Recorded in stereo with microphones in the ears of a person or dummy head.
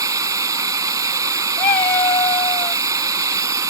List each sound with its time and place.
0.0 s running water: 20° right (ahead or behind)
1.6 s a cat meowing: 10° left (ahead or behind)